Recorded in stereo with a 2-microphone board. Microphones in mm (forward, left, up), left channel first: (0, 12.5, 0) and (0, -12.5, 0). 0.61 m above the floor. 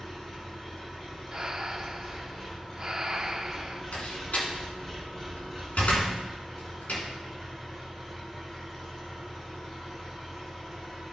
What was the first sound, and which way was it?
An engine running, 20° left (ahead or behind).